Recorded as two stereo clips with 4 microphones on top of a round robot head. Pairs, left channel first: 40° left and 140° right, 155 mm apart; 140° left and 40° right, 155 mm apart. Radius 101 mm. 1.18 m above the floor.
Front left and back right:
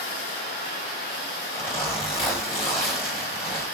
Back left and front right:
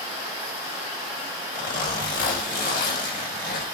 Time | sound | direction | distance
1.5 | a zipper | 105° left | 3.5 m